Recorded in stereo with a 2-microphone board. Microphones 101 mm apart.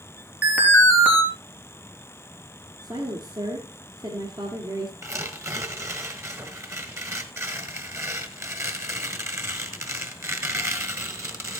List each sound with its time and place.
0.4 s an alarm: 15° right (ahead or behind), 3.5 m
2.8 s a woman speaking: 45° right (ahead or behind), 2.0 m
5.0 s tearing paper: 25° right (ahead or behind), 1.5 m